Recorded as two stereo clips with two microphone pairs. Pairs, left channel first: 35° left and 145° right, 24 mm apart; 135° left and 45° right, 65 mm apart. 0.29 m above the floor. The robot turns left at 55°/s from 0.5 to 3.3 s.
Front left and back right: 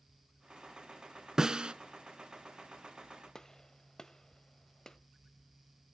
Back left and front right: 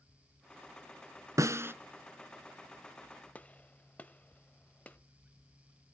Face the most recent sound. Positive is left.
turn(degrees=85)